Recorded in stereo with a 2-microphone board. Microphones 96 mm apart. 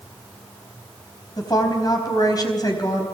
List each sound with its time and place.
1.4 s a woman speaking: 45° left (ahead or behind), 4 m